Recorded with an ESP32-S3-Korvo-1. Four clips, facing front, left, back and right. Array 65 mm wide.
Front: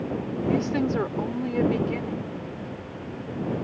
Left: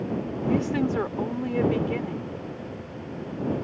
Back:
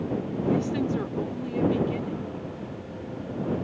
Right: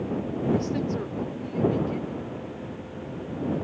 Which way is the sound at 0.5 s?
50° left.